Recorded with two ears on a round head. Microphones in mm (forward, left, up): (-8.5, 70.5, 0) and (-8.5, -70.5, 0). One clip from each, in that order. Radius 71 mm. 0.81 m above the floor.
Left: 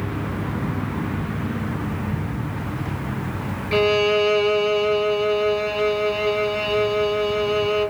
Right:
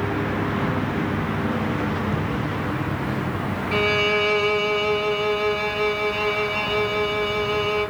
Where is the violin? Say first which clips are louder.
Left 2 dB; centre (ahead or behind), 0.6 m.